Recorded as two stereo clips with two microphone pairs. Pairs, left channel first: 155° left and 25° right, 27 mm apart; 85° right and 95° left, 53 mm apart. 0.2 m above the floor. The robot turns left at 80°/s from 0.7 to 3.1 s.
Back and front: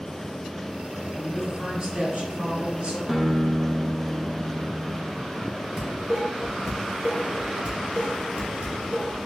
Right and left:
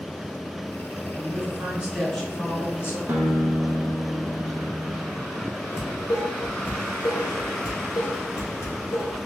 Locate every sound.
1.1 s a woman speaking: 90° left, 1.9 m; by 3.0 s 60° right, 1.9 m
3.1 s a guitar: 55° left, 0.8 m
5.8 s dishes clattering: 55° right, 1.7 m